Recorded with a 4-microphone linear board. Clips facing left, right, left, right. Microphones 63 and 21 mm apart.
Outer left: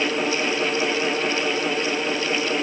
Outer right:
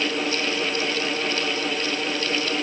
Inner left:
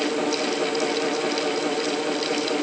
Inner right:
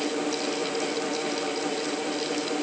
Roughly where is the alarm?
No alarm in this recording.